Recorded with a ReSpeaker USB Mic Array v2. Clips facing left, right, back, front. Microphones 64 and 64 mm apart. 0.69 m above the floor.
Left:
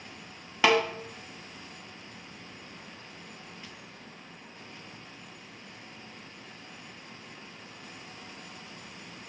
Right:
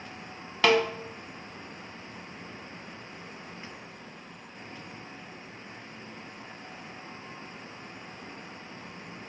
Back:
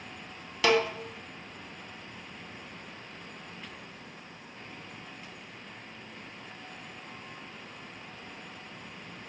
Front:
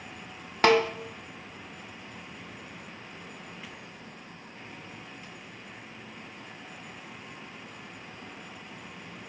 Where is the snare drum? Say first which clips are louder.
Right 1 dB, front 3 dB; 15° left, 0.8 m.